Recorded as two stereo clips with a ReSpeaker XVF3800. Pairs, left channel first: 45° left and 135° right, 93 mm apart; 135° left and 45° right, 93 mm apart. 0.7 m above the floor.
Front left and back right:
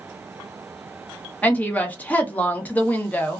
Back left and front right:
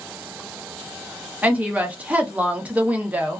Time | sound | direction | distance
1.4 | a woman speaking | 5° left | 0.7 m